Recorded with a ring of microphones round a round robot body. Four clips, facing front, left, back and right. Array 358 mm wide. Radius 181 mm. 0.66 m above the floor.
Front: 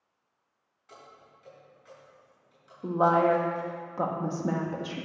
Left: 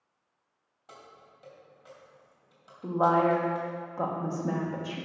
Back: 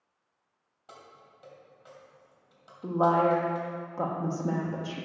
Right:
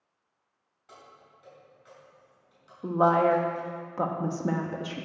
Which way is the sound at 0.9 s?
150° left.